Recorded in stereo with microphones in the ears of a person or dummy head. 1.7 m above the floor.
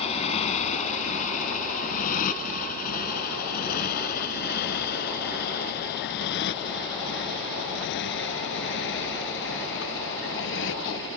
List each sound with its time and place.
0.0 s a motorcycle: 35° left (ahead or behind); by 11.2 s 70° left (ahead or behind)